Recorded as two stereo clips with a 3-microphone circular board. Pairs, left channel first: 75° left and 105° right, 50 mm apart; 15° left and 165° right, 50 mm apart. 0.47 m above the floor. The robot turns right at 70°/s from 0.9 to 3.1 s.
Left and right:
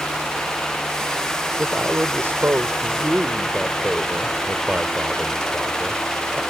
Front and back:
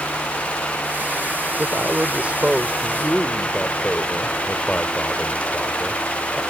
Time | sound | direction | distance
1.6 | a man speaking | 160° right | ?